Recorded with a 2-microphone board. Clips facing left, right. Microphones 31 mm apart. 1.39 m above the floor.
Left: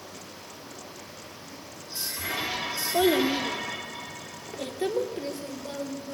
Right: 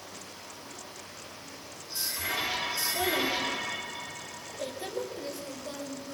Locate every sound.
2.9 s a child speaking: 75° left (ahead or behind), 2.5 m; by 6.2 s 30° left (ahead or behind), 4 m